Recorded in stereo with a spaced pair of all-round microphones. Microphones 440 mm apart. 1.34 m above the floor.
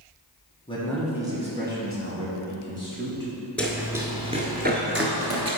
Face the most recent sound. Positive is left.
turn(degrees=-35)  # may be behind; listen again after turning